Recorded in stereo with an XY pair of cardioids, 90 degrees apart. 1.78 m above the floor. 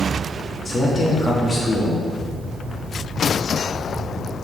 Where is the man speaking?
25° left, 3 m.